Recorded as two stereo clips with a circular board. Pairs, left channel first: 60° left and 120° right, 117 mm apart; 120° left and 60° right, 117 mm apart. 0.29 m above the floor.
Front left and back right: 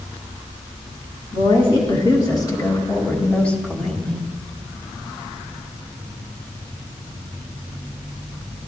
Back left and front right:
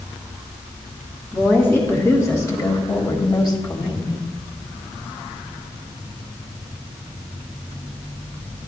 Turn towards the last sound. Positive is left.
turn(degrees=150)